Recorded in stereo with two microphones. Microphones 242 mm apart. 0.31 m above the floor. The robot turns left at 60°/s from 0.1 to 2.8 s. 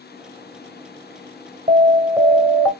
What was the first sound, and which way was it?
An alarm, 130° right.